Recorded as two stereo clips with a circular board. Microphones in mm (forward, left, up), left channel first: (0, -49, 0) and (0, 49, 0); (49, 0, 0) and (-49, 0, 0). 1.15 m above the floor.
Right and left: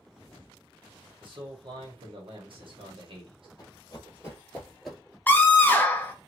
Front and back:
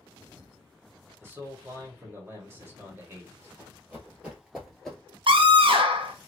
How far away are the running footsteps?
About 1.6 m.